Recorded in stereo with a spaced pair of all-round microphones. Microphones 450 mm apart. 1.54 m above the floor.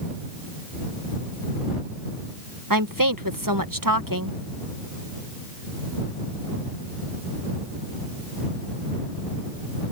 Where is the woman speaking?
45° right (ahead or behind).